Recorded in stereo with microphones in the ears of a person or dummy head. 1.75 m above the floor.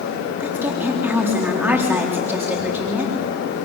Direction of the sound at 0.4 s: 15° right (ahead or behind).